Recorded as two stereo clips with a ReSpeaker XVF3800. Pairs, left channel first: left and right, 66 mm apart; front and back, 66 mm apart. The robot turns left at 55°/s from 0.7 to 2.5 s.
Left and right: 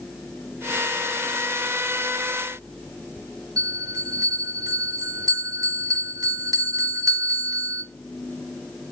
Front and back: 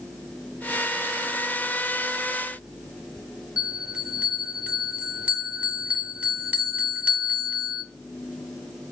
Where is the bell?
110° right, 1.0 m.